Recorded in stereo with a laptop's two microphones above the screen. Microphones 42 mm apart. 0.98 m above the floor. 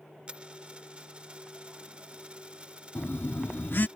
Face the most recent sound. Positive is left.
turn(degrees=55)  # may be behind; listen again after turning